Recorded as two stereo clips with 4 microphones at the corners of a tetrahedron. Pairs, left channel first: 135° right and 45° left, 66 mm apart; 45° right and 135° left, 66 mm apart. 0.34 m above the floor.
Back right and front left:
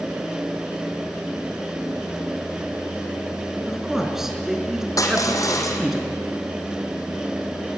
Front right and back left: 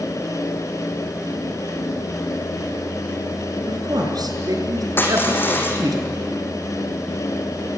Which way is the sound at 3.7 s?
130° left.